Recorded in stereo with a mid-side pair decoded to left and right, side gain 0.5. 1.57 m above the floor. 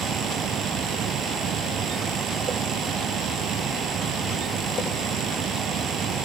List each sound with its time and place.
0.0 s a fan: 60° right